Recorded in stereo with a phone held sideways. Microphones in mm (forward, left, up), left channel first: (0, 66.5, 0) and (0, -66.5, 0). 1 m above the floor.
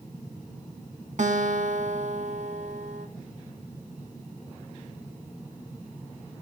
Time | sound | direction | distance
1.2 | a guitar | 65° right (ahead or behind) | 2.0 m